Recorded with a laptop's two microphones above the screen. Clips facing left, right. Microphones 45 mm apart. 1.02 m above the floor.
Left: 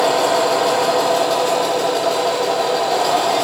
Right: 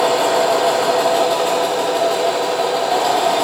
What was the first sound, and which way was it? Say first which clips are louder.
A machine running: even; 20° right (ahead or behind).